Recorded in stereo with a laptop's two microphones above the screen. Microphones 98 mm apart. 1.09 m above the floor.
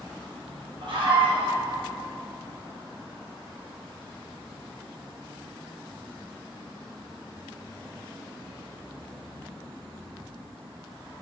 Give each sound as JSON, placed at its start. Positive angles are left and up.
{"t": 0.8, "sound": "a scream", "side_deg": -65, "distance_m": 5.0}